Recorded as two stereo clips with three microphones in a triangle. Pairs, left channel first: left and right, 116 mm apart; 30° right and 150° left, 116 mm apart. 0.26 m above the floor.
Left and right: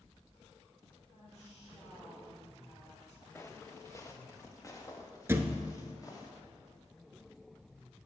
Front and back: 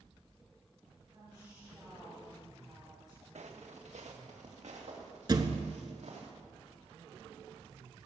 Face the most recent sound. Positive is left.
turn(degrees=-160)